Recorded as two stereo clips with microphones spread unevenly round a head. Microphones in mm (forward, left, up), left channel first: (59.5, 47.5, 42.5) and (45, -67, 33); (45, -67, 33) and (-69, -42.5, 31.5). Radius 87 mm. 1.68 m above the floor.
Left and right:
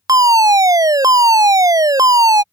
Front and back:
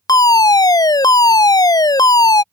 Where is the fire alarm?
55° right.